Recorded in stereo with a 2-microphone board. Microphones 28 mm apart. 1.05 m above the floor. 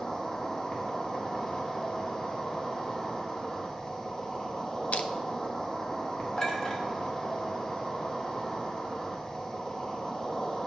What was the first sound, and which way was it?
An insect, 25° left (ahead or behind).